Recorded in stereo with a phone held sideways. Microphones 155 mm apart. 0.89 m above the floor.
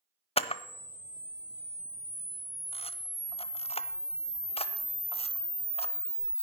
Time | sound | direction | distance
0.4 | a camera shutter | 40° left (ahead or behind) | 0.8 m